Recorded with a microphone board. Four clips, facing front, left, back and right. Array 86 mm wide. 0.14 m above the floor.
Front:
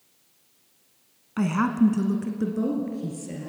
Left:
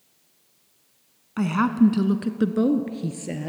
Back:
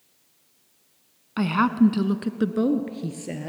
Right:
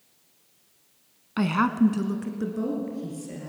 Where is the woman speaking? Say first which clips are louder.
Left 2 dB, back 2 dB; 135° right, 1.1 m; by 3.5 s 130° left, 2.5 m.